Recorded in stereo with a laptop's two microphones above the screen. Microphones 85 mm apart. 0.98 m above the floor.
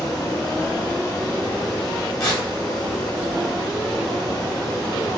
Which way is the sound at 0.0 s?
40° left (ahead or behind).